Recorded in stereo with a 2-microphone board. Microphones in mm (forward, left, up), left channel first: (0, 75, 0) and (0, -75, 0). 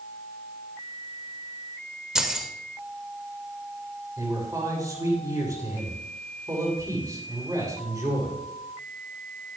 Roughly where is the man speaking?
Right.